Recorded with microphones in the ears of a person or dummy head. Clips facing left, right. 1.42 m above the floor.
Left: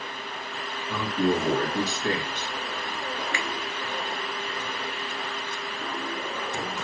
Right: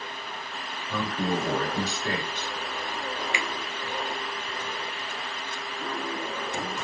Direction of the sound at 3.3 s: 15° right (ahead or behind).